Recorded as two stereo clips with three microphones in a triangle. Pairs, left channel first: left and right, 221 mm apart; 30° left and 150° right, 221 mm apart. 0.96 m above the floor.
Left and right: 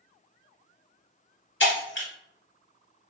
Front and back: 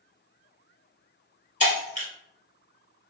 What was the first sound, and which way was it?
Breaking glass, 80° left.